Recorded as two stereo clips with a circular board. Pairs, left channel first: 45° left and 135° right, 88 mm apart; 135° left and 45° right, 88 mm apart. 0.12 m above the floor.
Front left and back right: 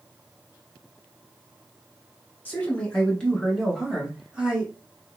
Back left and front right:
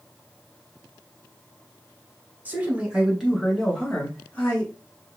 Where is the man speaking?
Straight ahead, 1.3 m; by 4.7 s 170° left, 1.2 m.